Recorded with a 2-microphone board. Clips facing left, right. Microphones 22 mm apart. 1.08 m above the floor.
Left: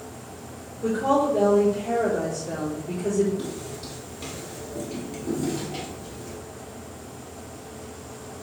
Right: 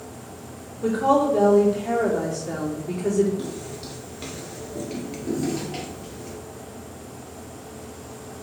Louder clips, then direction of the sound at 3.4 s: Right 1 dB; 5° right (ahead or behind).